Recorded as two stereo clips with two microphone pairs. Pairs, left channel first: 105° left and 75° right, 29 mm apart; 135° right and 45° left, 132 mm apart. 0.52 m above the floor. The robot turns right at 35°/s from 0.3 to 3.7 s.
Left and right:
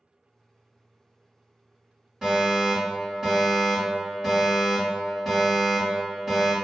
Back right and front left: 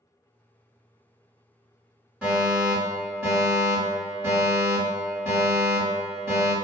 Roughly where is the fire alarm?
Ahead right.